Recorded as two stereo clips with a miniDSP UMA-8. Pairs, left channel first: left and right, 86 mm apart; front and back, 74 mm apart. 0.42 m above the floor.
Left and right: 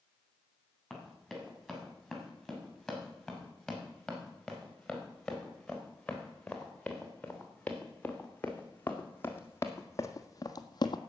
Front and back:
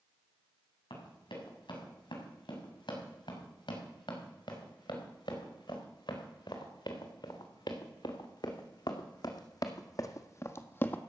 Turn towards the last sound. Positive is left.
turn(degrees=65)